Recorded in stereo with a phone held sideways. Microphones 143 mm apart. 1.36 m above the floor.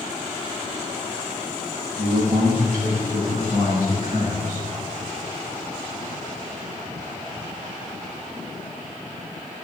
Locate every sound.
2.0 s a man speaking: 60° right (ahead or behind), 1.2 m; by 4.7 s 65° right (ahead or behind), 3 m